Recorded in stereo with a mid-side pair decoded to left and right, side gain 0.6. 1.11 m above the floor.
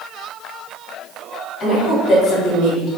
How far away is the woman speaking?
About 1.6 m.